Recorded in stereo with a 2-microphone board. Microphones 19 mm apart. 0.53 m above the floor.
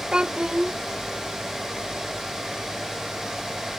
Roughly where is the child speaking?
Right.